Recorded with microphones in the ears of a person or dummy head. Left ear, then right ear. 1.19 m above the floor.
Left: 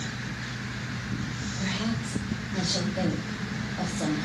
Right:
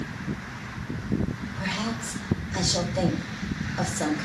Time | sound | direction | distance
1.6 | a woman speaking | 75° right (ahead or behind) | 2.5 m